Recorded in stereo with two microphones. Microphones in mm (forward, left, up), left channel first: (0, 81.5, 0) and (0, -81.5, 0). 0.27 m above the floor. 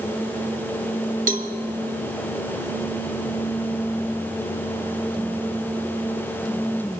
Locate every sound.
1.3 s a cowbell: 55° right (ahead or behind), 1.1 m